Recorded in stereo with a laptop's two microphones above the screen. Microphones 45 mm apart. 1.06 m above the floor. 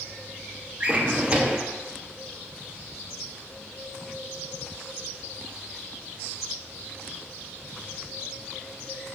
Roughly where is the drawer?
Right.